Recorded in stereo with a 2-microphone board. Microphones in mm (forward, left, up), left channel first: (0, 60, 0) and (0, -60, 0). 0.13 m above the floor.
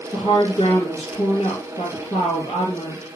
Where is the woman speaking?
55° left (ahead or behind), 2.5 m.